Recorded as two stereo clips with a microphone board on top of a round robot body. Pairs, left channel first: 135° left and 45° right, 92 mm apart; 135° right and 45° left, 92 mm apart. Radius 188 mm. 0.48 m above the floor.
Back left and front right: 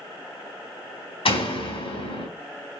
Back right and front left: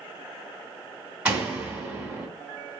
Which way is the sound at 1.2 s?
125° left.